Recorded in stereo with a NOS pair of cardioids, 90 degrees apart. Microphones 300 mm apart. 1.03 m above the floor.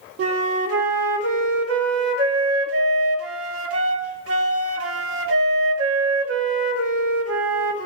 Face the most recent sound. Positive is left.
turn(degrees=-50)